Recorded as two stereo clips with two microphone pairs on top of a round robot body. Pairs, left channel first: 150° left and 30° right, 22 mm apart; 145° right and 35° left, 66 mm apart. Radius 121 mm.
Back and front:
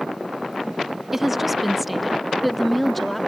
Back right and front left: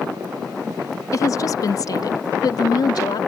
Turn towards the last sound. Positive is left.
turn(degrees=-125)